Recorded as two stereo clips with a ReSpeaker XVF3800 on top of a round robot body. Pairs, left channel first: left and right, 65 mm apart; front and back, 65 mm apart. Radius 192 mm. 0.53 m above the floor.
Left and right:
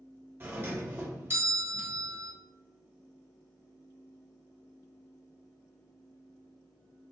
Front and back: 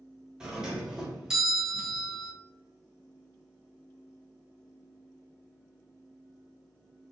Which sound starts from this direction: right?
A doorbell, at 0.4 s.